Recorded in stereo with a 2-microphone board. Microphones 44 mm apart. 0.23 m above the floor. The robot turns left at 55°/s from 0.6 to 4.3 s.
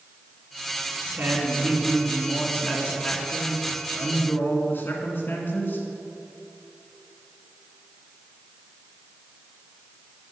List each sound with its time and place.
1.1 s a woman speaking: 130° right, 1.9 m; by 5.8 s 60° left, 1.9 m